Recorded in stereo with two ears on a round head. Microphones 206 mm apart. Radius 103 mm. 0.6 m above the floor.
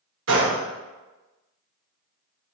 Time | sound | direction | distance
0.3 | a gunshot | 55° right (ahead or behind) | 0.8 m